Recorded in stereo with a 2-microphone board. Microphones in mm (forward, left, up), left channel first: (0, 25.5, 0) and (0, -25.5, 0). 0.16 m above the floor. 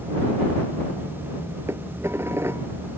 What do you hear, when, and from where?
1.7 s dishes clattering: 60° right (ahead or behind)